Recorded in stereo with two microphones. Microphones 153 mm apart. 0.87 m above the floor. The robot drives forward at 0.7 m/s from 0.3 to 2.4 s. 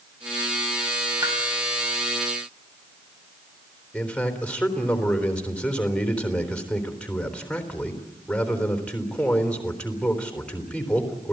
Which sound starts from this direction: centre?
A man speaking, at 3.9 s.